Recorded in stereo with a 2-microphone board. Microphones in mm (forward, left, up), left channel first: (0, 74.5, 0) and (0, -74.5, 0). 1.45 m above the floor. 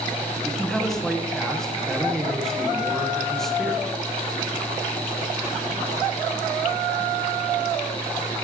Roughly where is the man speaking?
Centre.